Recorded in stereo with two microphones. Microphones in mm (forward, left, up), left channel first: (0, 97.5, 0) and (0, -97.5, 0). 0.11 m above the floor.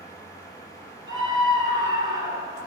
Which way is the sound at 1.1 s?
20° right (ahead or behind).